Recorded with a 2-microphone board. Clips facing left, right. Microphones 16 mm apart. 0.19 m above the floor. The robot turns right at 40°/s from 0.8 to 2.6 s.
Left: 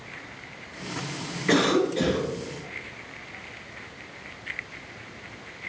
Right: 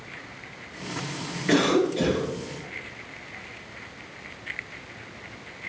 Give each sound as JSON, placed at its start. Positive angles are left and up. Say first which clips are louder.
{"t": 1.5, "sound": "a cough", "louder": "even", "azimuth_deg": 105, "distance_m": 2.0}